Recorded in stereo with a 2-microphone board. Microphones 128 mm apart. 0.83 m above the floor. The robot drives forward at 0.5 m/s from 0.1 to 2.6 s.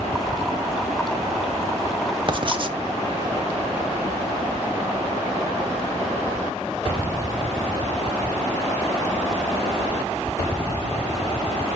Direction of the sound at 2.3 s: 40° right (ahead or behind).